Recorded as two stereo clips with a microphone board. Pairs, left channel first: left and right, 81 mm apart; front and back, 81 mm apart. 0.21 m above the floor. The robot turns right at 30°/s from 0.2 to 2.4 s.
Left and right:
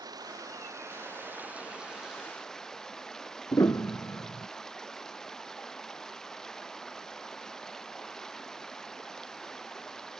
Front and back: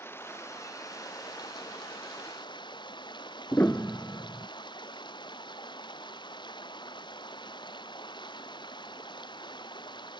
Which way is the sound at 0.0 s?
60° right.